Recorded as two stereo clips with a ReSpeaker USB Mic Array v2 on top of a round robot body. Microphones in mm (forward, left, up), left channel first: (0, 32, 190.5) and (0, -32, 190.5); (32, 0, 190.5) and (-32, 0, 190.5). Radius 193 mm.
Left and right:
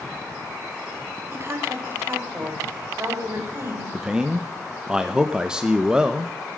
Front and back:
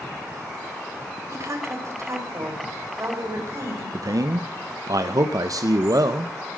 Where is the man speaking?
165° right, 1.0 m.